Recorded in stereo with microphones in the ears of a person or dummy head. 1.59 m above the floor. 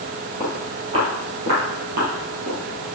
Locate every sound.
0.4 s footsteps: 15° right (ahead or behind), 2.5 m; by 2.6 s 65° right (ahead or behind), 3.5 m